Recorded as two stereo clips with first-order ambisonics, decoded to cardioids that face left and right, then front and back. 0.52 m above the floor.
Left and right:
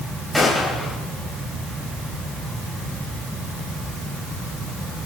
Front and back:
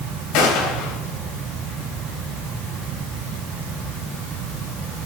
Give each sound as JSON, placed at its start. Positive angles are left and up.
{"t": 0.3, "sound": "a gunshot", "azimuth_deg": 5, "distance_m": 3.5}